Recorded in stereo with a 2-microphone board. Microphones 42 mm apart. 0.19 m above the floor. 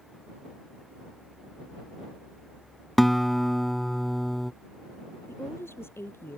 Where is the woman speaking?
75° left (ahead or behind).